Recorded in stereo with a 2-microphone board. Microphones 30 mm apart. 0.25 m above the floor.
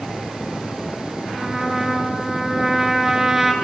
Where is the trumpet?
10° right (ahead or behind), 2 m.